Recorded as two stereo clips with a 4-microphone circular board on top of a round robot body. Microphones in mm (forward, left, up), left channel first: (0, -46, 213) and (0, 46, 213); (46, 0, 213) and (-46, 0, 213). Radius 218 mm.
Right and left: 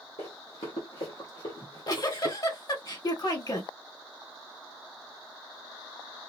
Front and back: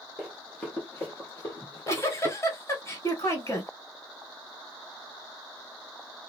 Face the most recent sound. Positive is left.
turn(degrees=-55)